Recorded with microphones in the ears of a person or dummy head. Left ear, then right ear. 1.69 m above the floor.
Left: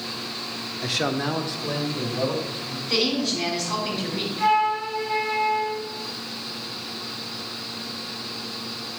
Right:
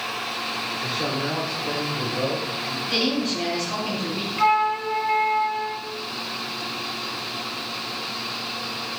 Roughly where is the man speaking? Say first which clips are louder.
Left 4 dB; left.